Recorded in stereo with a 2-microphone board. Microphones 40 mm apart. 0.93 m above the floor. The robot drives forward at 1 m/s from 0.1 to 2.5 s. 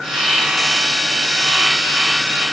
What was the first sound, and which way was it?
Only background noise.